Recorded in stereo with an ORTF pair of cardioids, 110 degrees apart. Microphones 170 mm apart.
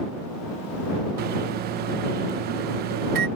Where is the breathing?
I don't hear breathing.